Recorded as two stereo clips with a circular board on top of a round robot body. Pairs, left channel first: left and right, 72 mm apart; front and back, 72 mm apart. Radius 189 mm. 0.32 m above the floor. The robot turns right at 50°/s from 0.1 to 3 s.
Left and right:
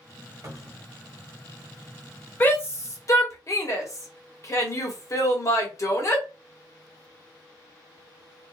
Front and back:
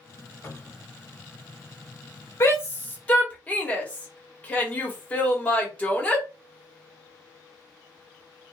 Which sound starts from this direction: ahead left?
A shout, at 2.4 s.